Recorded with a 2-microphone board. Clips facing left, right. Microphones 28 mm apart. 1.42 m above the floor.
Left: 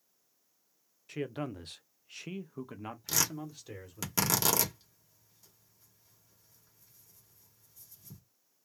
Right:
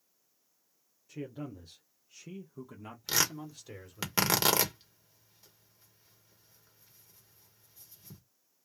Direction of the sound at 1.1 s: 65° left (ahead or behind).